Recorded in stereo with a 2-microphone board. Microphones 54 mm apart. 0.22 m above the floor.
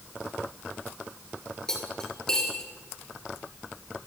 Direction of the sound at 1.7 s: 15° left (ahead or behind).